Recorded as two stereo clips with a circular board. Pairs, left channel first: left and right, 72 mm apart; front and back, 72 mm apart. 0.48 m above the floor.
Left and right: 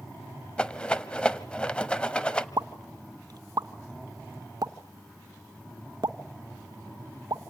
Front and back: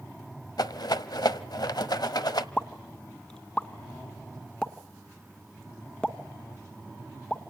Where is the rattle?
15° left, 1.1 m.